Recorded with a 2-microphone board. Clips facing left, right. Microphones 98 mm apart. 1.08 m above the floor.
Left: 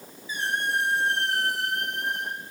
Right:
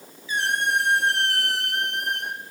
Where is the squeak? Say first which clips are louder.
Right 4 dB; 85° right, 0.9 m.